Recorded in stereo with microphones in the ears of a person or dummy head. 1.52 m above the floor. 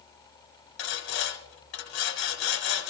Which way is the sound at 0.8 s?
65° left (ahead or behind).